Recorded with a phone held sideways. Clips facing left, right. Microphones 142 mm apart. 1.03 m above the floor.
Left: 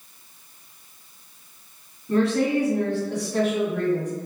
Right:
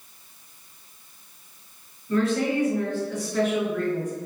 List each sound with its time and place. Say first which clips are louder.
2.1 s a woman speaking: left 2 dB; 65° left (ahead or behind), 1.7 m